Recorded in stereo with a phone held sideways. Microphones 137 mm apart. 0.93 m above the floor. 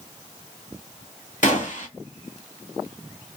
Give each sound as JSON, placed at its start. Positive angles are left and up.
{"t": 1.4, "sound": "a gunshot", "side_deg": 65, "distance_m": 1.8}